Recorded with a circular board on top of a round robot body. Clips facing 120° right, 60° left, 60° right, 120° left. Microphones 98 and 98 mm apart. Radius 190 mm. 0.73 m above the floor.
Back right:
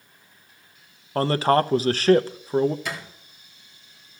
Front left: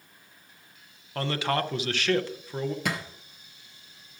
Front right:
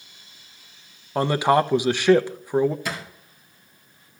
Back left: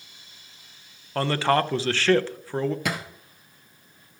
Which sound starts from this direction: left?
A thud, at 2.9 s.